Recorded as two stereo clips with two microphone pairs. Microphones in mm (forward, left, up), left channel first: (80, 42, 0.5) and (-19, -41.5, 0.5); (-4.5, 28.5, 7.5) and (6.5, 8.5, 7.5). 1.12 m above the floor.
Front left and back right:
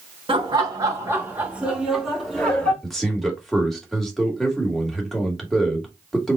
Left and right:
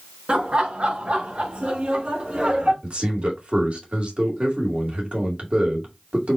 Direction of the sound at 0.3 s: 90° right.